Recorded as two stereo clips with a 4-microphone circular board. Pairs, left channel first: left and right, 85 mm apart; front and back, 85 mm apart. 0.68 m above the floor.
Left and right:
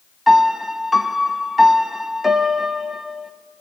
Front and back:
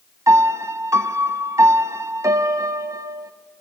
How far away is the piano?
About 0.6 m.